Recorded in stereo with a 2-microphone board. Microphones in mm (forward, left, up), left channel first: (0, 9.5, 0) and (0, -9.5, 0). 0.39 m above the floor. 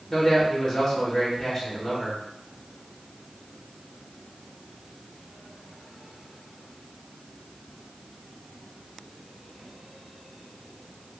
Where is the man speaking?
25° left (ahead or behind), 1.0 m.